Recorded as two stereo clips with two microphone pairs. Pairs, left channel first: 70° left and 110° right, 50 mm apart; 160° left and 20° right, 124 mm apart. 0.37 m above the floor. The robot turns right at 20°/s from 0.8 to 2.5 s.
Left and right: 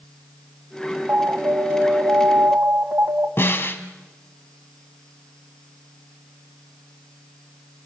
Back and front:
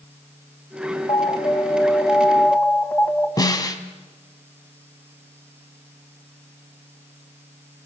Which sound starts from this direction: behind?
An alarm, at 1.1 s.